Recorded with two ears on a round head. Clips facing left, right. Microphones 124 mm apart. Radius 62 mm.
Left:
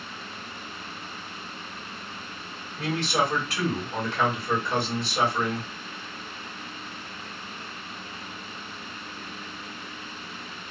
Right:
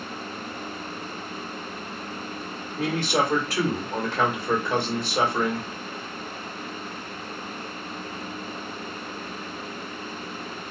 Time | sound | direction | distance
2.8 | a man speaking | 40° right (ahead or behind) | 1.8 m